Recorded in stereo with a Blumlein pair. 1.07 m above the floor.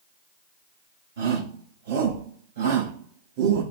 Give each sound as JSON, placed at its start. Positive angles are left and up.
{"t": 1.2, "sound": "a shout", "azimuth_deg": -60, "distance_m": 5.0}